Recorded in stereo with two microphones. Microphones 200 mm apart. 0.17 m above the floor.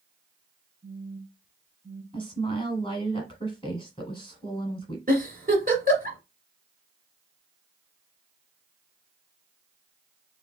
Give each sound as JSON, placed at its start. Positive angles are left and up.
{"t": 0.8, "sound": "a phone buzzing", "side_deg": 0, "distance_m": 1.0}
{"t": 2.1, "sound": "a woman speaking", "side_deg": 25, "distance_m": 1.1}
{"t": 5.1, "sound": "a giggle", "side_deg": -45, "distance_m": 1.6}